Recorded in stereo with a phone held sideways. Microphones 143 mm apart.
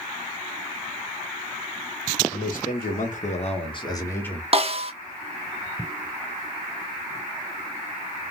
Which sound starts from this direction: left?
A man speaking, at 2.3 s.